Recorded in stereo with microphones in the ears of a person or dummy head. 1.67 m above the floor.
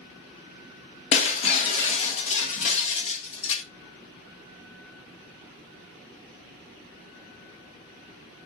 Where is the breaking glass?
40° left (ahead or behind), 1.1 m.